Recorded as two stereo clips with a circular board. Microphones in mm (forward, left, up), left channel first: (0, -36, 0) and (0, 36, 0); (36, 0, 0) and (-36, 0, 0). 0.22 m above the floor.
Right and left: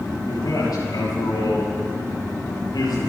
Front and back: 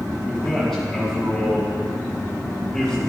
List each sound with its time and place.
0.3 s a man speaking: 90° right, 3.5 m